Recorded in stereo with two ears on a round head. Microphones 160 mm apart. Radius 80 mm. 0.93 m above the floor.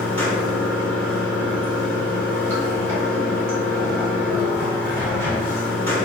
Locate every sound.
0.0 s running water: 10° left (ahead or behind), 1.0 m